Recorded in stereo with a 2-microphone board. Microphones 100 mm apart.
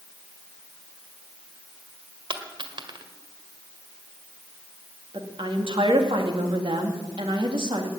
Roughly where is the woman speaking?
Right.